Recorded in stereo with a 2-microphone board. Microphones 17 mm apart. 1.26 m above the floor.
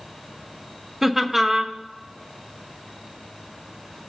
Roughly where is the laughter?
Centre.